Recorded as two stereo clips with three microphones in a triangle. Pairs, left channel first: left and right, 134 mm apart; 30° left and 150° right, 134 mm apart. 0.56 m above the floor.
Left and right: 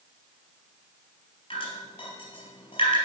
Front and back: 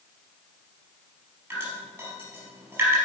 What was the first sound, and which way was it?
Dripping, 140° left.